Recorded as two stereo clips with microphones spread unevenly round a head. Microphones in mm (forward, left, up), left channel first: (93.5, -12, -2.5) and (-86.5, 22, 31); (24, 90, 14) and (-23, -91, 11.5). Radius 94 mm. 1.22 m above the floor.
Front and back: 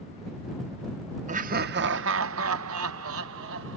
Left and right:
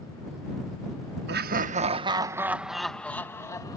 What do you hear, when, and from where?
1.3 s laughter: 135° right; by 3.8 s 145° left